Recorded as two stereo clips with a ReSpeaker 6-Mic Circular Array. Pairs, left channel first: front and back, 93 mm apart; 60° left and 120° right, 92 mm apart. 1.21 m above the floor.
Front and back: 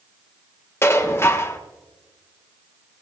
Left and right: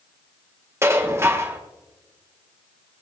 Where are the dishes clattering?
60° right, 1.5 m.